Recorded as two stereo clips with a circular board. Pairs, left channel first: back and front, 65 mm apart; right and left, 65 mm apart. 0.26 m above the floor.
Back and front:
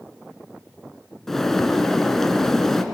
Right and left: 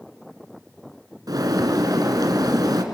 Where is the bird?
95° left, 1.5 m.